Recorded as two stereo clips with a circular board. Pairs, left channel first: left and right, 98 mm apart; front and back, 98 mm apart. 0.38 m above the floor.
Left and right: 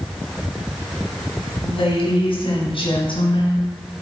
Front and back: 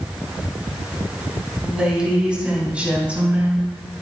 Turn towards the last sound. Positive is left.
turn(degrees=105)